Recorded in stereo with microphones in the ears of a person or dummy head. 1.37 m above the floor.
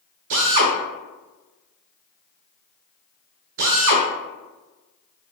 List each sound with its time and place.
0.3 s a drill: 60° right (ahead or behind), 0.8 m